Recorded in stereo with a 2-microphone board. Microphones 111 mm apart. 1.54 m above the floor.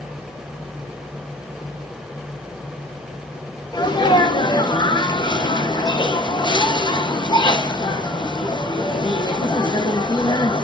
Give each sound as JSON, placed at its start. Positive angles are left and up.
{"t": 3.7, "sound": "a sneeze", "side_deg": 40, "distance_m": 1.3}